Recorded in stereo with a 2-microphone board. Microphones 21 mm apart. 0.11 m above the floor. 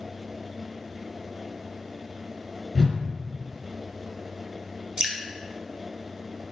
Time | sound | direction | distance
2.8 | a whoosh | 20° left (ahead or behind) | 1.1 m
5.0 | dripping | 35° right (ahead or behind) | 0.9 m